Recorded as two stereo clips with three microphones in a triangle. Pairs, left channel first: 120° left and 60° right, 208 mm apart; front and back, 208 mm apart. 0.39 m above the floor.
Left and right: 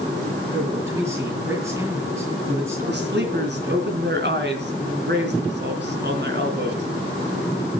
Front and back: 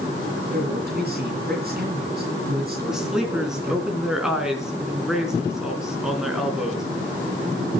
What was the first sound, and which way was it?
A man speaking, 135° right.